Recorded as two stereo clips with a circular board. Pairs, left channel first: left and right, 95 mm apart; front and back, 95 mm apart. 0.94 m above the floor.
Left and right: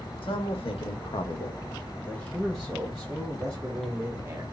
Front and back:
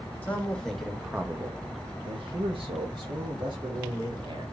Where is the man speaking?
75° left, 1.3 m; by 4.4 s 150° right, 2 m.